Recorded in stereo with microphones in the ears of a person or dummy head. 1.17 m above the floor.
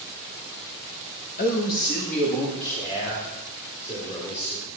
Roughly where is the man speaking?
Left.